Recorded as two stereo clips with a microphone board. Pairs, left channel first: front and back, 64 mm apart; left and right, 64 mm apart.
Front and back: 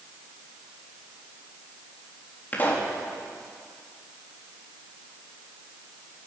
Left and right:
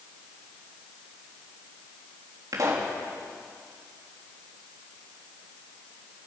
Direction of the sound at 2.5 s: 60° right.